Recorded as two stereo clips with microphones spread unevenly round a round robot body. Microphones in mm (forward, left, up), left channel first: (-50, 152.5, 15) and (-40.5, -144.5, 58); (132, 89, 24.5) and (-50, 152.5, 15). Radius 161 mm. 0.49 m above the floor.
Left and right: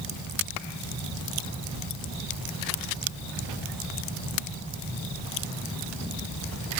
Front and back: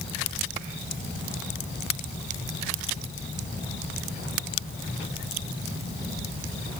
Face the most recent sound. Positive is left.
No sound to turn to.